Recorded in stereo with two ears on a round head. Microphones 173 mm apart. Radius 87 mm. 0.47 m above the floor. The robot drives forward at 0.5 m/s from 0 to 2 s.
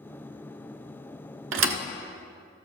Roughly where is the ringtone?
I don't hear a ringtone.